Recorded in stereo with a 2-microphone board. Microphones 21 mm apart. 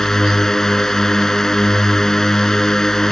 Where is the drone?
20° left (ahead or behind).